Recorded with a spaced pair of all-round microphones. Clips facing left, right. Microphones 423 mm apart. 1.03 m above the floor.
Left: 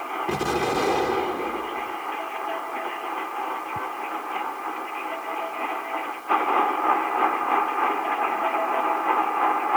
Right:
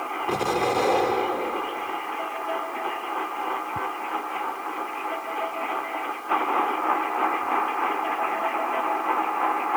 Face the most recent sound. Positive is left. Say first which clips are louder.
# even
turn(degrees=30)  # may be behind; listen again after turning